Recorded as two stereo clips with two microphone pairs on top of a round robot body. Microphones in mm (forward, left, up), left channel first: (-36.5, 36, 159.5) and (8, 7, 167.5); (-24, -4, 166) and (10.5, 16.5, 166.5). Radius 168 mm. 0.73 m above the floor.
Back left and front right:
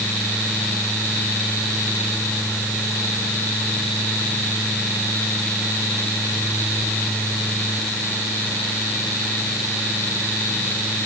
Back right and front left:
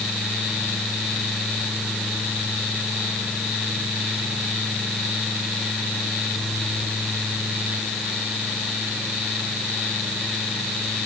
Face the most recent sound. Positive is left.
No sound to turn to.